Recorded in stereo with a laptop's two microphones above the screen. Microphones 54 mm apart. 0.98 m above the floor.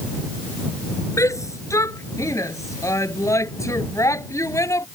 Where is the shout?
85° left; by 4.9 s 80° left.